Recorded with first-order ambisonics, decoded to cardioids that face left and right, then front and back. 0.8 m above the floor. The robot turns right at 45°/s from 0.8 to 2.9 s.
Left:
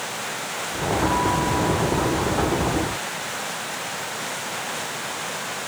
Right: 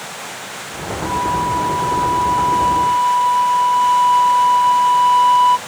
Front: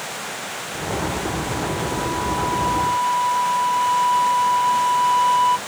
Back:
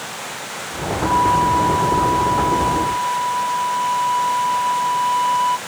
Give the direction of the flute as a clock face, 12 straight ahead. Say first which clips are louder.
Right 6 dB, back 10 dB; 6 o'clock.